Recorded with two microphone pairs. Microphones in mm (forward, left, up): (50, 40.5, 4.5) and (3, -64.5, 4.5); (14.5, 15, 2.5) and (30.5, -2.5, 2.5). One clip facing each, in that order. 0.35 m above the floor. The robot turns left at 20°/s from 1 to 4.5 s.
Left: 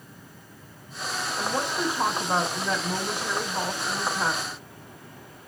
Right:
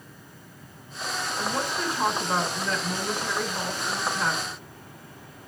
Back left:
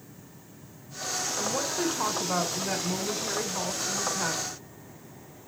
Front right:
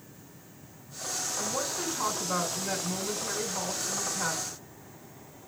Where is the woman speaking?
125° left, 0.9 m; by 4.6 s 60° left, 0.9 m.